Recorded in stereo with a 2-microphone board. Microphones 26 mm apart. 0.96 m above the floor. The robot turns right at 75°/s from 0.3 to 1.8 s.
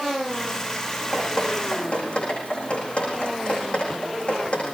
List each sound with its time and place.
1.1 s dripping: 10° left (ahead or behind), 10 m; by 4.8 s 60° left (ahead or behind), 10 m